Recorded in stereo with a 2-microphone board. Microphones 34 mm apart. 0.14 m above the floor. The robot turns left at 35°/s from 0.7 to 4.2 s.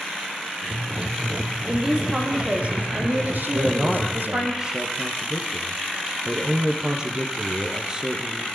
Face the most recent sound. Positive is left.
turn(degrees=-20)  # may be behind; listen again after turning